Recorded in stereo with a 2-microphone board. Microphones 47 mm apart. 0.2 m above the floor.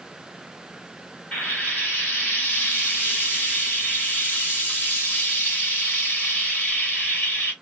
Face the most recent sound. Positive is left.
turn(degrees=30)  # may be behind; listen again after turning